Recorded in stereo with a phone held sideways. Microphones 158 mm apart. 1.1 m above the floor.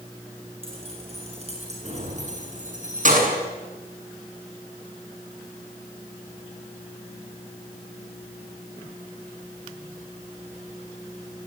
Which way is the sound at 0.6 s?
40° right (ahead or behind).